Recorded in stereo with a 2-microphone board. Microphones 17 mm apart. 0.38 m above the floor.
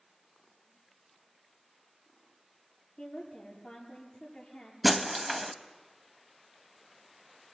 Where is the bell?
I don't hear a bell.